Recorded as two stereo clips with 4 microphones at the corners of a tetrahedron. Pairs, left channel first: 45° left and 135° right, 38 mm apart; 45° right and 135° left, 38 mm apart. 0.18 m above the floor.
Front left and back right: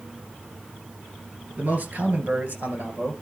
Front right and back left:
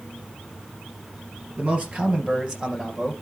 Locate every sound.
1.6 s a man speaking: 170° right, 2.5 m; by 3.1 s 150° right, 3 m